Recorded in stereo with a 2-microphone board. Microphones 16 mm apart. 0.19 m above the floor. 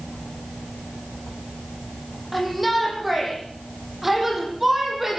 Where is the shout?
5° left (ahead or behind), 9 m; by 5.2 s 15° right (ahead or behind), 8.5 m.